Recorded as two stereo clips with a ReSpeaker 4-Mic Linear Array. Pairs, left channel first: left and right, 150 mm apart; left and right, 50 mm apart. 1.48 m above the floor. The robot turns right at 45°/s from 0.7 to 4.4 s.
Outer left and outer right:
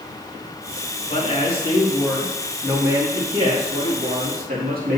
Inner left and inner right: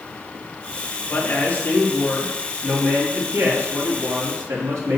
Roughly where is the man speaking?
Behind left.